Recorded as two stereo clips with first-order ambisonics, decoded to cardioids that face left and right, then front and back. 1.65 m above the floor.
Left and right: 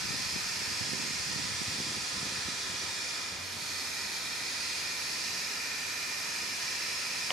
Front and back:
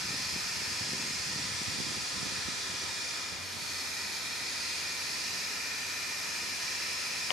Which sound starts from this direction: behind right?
Running water, at 0.0 s.